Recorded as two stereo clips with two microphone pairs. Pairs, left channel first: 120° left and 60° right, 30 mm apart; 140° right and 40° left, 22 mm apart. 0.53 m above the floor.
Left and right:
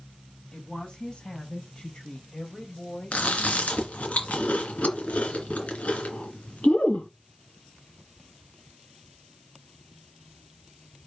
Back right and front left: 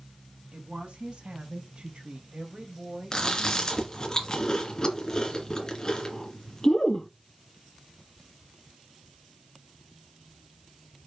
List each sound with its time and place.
0.5 s a woman speaking: 60° left, 4 m; by 4.1 s 95° left, 2 m
3.1 s chewing: 155° left, 2.5 m